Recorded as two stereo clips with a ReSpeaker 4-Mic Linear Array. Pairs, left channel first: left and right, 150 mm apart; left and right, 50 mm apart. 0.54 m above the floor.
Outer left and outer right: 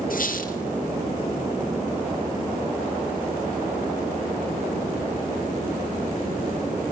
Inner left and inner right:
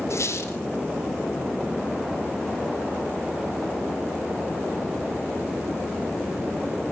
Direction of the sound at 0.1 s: 70° left (ahead or behind).